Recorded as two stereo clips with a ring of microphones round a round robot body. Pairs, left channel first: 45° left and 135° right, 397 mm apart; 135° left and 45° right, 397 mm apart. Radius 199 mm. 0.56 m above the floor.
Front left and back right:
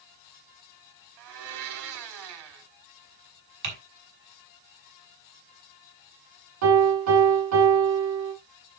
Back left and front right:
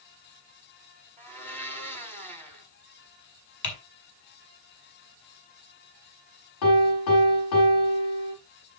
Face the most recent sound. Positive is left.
turn(degrees=175)